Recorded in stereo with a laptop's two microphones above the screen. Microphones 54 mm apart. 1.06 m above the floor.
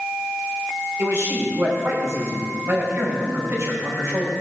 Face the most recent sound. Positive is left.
turn(degrees=-55)  # may be behind; listen again after turning